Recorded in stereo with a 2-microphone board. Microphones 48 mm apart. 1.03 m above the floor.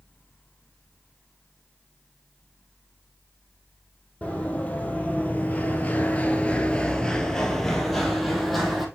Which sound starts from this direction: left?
Running footsteps, at 4.2 s.